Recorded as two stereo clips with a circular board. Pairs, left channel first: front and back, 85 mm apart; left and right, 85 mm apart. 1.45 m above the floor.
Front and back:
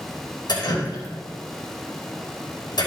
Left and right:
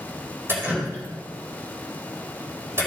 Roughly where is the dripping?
Ahead right.